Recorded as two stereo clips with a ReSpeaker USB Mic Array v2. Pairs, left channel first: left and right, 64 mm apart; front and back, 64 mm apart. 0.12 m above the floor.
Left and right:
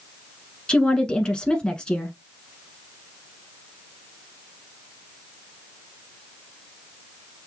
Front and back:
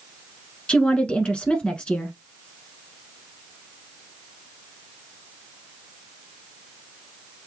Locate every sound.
0.7 s a woman speaking: 40° left, 1.1 m